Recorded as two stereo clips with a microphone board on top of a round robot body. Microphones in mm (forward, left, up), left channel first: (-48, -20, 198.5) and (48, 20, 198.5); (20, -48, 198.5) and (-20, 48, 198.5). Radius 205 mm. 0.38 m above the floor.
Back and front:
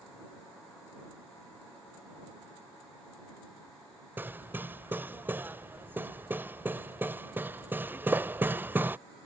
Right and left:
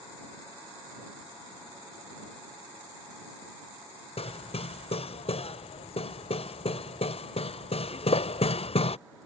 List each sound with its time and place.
4.2 s hammering: 50° right